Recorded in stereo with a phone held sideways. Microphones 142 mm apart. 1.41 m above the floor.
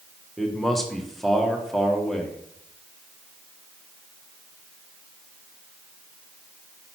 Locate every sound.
0.4 s a man speaking: 5° left (ahead or behind), 1.4 m